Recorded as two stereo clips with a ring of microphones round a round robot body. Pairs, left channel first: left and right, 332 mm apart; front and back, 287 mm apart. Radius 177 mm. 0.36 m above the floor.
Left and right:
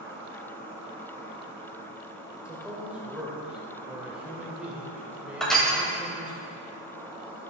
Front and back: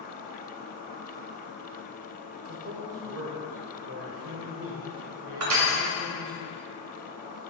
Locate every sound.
0.0 s an insect: 170° right, 2.5 m
2.5 s a man speaking: 175° right, 1.2 m
5.4 s crushing: straight behind, 1.7 m